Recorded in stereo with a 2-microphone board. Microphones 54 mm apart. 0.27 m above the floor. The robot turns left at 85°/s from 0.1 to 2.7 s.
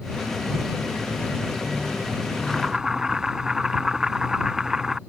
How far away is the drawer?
I don't hear a drawer.